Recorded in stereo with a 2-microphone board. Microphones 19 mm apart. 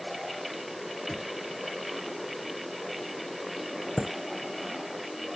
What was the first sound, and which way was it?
Knocking, 20° left (ahead or behind).